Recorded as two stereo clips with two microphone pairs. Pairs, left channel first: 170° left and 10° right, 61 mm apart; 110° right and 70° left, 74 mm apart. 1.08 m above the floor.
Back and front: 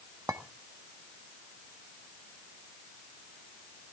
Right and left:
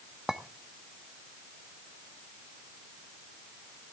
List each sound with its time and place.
0.3 s a clink: 10° right, 0.8 m